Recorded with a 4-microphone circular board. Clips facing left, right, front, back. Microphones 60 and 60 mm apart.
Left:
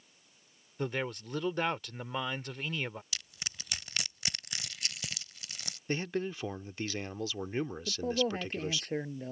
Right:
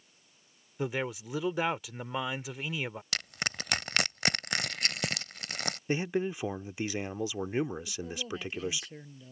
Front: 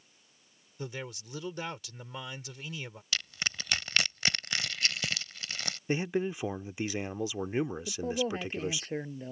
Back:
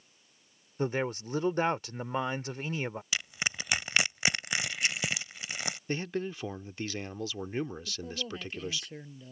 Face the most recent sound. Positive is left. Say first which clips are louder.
# left 7 dB, front 7 dB
turn(degrees=50)